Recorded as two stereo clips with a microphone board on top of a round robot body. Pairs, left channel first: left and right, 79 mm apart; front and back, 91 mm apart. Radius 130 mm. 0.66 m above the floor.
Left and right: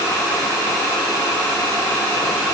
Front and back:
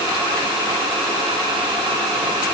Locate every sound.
Only background noise.